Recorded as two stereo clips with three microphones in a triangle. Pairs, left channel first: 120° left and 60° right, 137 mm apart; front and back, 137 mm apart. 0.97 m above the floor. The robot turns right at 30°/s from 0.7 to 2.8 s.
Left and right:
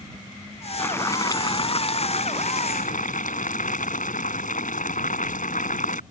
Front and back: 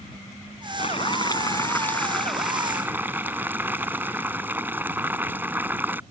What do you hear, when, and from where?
0.8 s boiling: 45° left; by 6.0 s 105° left